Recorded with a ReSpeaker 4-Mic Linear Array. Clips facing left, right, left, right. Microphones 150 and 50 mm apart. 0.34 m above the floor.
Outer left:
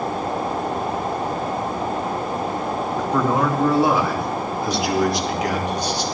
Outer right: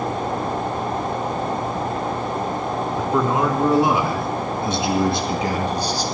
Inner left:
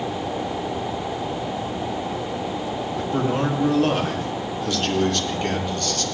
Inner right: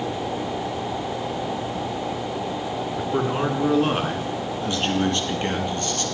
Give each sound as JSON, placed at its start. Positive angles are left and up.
{"t": 3.0, "sound": "a man speaking", "side_deg": -10, "distance_m": 3.5}